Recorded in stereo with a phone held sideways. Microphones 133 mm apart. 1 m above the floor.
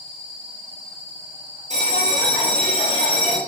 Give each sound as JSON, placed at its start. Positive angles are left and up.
{"t": 1.7, "sound": "a bell", "side_deg": -55, "distance_m": 0.9}